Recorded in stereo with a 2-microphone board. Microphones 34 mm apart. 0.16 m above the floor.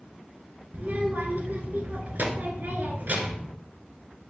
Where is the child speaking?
55° right (ahead or behind), 1.7 m.